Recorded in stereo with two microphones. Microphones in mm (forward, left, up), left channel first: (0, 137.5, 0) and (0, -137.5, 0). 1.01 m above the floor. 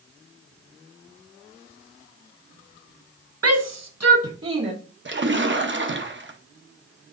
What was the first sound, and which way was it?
A shout, 55° right (ahead or behind).